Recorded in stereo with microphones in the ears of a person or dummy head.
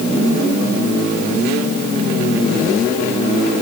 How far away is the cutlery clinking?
I don't hear cutlery clinking.